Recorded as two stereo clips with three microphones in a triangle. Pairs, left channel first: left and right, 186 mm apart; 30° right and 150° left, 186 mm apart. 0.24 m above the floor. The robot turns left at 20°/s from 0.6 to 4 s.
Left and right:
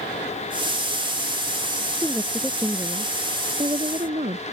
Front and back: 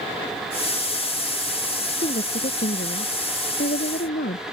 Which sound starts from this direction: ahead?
A woman speaking, at 2.0 s.